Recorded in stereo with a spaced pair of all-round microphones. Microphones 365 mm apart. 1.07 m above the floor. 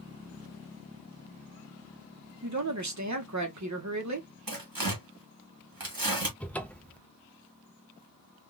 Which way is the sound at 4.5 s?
70° right (ahead or behind).